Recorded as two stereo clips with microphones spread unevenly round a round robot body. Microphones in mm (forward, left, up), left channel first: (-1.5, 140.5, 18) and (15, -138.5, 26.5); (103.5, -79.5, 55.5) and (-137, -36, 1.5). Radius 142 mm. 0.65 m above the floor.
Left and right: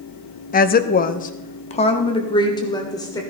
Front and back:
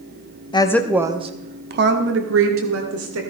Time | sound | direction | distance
0.5 | a woman speaking | 65° left | 0.8 m